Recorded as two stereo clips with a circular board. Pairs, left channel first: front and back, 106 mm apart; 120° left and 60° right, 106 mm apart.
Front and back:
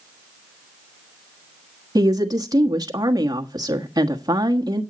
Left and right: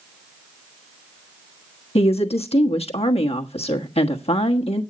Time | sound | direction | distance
1.9 | a woman speaking | 130° left | 1.3 m